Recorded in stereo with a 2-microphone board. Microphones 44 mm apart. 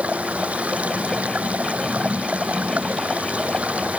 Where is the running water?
30° right (ahead or behind).